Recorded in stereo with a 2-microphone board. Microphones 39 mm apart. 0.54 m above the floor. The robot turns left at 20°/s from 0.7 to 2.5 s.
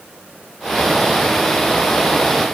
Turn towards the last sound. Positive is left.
No sound to turn to.